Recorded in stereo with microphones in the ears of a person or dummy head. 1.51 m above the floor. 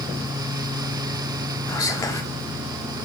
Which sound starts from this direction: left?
Whispering, at 1.7 s.